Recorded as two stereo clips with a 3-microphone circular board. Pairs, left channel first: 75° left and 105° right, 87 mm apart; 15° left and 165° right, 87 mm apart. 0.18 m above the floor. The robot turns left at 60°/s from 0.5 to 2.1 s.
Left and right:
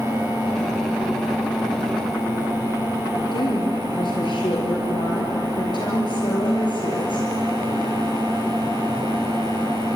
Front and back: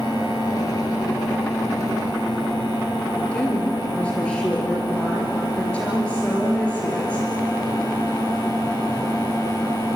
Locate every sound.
3.3 s a woman speaking: 90° left, 4 m